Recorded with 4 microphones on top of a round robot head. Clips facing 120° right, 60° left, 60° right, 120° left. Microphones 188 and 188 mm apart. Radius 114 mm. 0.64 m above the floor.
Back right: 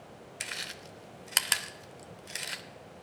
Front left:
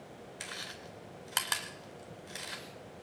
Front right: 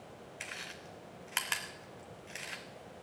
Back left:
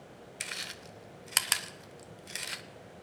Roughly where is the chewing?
Behind.